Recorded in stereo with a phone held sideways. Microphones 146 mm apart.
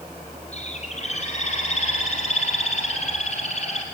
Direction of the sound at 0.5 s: 50° left (ahead or behind).